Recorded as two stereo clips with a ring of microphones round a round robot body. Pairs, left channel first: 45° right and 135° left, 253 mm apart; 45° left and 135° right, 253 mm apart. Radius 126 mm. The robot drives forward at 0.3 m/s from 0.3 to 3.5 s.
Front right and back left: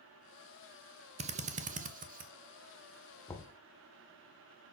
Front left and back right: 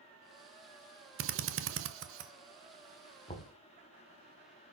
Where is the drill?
165° right, 0.7 m; by 2.3 s 170° right, 1.0 m.